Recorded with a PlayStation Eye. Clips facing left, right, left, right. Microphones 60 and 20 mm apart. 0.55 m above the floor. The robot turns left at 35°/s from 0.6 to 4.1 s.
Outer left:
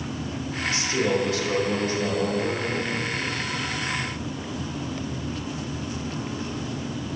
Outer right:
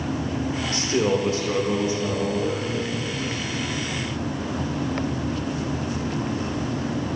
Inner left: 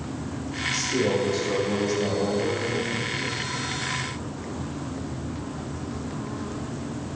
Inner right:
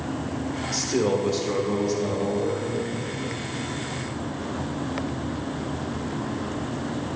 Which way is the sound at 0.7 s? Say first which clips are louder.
Outer right 2 dB, inner right 1 dB; 120° right.